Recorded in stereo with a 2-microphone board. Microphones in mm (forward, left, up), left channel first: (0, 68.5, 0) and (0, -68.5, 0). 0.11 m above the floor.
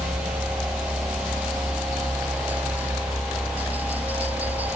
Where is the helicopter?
15° right (ahead or behind); by 4.8 s 10° right (ahead or behind).